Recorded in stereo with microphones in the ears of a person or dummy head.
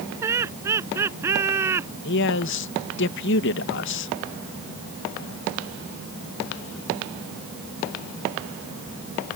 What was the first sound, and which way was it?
Laughter, 15° right (ahead or behind).